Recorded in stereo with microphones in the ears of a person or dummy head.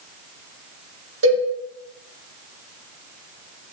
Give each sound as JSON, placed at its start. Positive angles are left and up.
{"t": 1.2, "sound": "a cowbell", "side_deg": -70, "distance_m": 1.3}